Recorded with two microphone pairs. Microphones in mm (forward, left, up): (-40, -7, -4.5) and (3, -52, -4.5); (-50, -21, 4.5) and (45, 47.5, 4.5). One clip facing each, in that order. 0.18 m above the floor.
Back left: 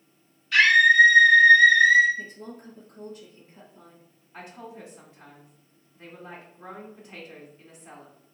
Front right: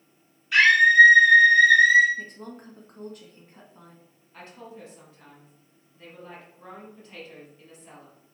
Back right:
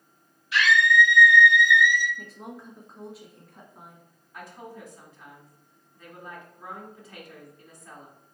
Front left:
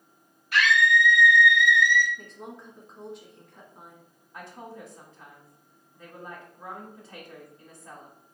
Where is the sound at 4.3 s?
75° left, 1.2 m.